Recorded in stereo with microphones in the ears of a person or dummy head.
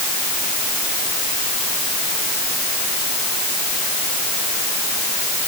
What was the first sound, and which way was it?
Only background noise.